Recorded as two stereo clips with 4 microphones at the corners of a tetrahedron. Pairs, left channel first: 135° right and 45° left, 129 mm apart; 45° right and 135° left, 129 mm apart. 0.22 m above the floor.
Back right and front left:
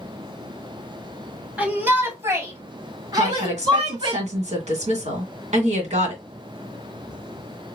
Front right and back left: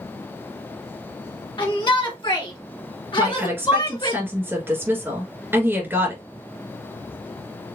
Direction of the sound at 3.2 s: 65° left.